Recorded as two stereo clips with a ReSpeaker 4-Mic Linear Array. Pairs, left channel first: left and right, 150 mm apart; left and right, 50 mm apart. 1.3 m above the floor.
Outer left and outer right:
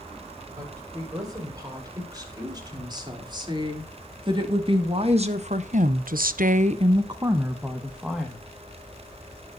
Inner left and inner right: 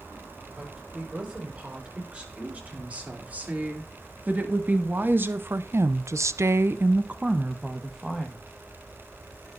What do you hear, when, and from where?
0.6 s a woman speaking: 25° right (ahead or behind), 6 m; by 8.4 s centre (ahead or behind), 2 m